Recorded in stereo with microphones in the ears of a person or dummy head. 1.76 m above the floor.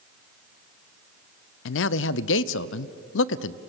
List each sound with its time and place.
1.6 s a man speaking: 75° left (ahead or behind), 0.8 m